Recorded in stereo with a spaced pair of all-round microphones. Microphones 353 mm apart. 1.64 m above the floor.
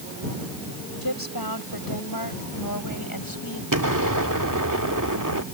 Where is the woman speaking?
85° left; by 3.6 s 70° left (ahead or behind).